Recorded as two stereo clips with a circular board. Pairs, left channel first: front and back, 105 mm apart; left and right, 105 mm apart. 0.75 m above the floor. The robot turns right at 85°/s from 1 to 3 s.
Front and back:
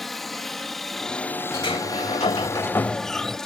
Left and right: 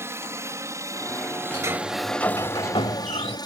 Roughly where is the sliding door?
Ahead right.